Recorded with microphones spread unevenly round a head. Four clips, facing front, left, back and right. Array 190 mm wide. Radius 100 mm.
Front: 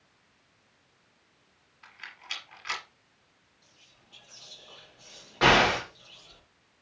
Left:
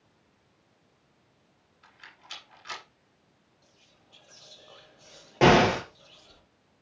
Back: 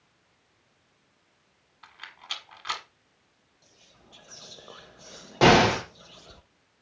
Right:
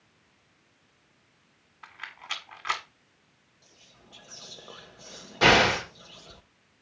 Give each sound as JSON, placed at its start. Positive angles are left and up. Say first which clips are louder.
{"t": 1.8, "sound": "a rattle", "louder": "right 10 dB, back 2 dB", "azimuth_deg": -120, "distance_m": 1.7}
{"t": 3.6, "sound": "whispering", "louder": "right 7 dB, back 7 dB", "azimuth_deg": -125, "distance_m": 0.8}
{"t": 5.4, "sound": "an explosion", "louder": "left 2 dB, back 4 dB", "azimuth_deg": 130, "distance_m": 1.5}